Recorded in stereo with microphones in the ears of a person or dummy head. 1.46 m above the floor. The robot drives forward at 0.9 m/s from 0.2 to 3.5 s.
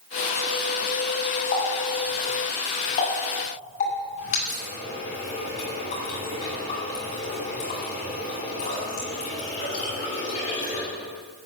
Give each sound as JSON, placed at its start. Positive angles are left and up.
{"t": 1.5, "sound": "a running tap", "side_deg": 50, "distance_m": 6.5}